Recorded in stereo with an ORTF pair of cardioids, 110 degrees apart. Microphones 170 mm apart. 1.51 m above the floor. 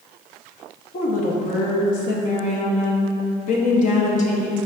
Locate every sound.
0.9 s a woman speaking: 50° left, 0.6 m